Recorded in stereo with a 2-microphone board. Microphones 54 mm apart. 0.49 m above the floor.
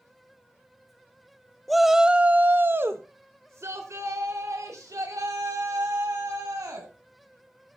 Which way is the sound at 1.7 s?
5° left (ahead or behind).